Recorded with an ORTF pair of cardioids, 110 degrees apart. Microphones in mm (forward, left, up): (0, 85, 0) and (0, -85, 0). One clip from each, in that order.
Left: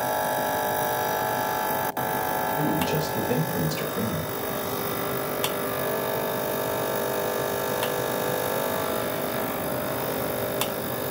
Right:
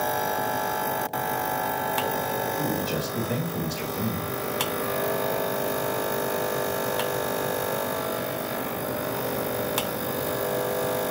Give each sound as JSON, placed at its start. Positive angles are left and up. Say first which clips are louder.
{"t": 2.6, "sound": "a man speaking", "louder": "left 3 dB", "azimuth_deg": 10, "distance_m": 1.7}